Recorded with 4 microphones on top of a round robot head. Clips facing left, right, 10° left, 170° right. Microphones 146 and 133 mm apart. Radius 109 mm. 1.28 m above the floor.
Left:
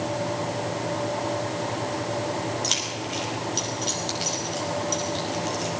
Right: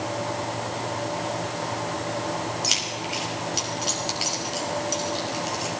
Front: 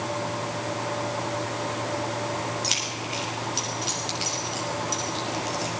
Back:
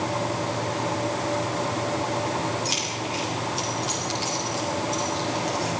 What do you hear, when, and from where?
2.6 s keys jangling: 10° right, 5.5 m